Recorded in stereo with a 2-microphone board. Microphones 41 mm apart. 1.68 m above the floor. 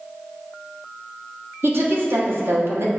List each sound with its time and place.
1.6 s a woman speaking: 60° right (ahead or behind), 1.3 m